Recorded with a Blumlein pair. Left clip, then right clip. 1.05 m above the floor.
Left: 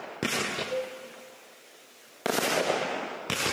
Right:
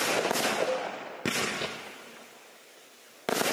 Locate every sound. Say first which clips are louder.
0.7 s a cowbell: right 2 dB; 60° right, 1.1 m